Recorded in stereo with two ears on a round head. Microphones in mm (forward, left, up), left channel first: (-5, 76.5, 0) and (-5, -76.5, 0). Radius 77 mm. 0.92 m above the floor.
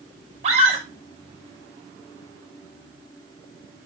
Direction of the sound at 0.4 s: 40° right (ahead or behind).